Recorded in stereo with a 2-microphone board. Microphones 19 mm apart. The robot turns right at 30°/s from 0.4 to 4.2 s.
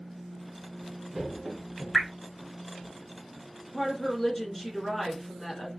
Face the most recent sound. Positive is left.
turn(degrees=15)  # may be behind; listen again after turning